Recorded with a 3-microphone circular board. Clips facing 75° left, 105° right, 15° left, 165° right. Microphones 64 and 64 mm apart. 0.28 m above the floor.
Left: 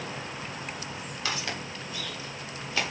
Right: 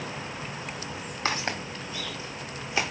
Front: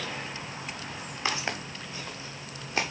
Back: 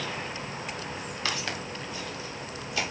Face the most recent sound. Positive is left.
turn(degrees=-30)